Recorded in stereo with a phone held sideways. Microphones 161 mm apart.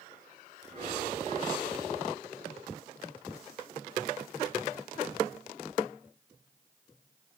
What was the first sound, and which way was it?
Breathing, 65° right (ahead or behind).